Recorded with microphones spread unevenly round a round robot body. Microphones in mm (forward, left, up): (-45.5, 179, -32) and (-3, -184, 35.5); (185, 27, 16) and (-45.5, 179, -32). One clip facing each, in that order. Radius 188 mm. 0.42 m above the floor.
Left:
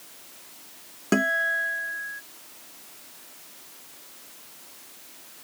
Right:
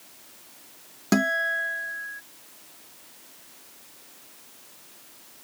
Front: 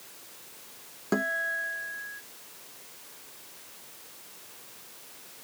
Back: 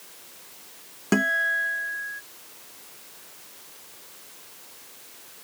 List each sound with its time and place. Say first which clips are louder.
1.1 s a guitar: right 1 dB, back 5 dB; 150° right